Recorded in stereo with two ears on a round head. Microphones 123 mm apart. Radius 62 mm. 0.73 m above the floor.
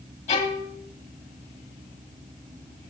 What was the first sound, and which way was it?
A violin, 50° left (ahead or behind).